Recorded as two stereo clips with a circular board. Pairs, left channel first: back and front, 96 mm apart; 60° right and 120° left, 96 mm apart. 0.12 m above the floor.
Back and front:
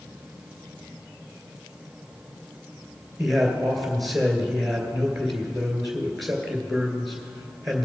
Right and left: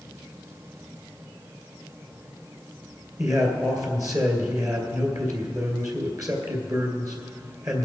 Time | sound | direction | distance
3.2 | a man speaking | 90° left | 2 m